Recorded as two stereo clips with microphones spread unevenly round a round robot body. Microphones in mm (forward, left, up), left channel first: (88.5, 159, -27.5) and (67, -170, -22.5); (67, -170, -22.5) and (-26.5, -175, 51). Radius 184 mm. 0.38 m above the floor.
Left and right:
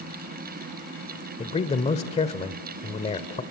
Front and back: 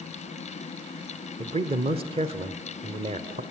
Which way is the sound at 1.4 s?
130° left.